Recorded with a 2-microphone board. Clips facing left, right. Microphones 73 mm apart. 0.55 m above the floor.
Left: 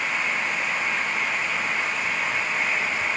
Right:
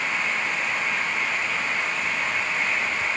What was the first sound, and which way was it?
Only background noise.